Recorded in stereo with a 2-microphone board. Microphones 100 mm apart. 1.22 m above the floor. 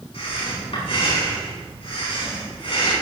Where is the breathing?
70° left (ahead or behind), 7 m.